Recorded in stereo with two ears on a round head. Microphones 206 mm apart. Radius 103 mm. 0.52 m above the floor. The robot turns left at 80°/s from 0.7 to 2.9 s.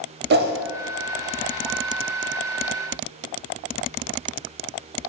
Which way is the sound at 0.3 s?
45° right (ahead or behind).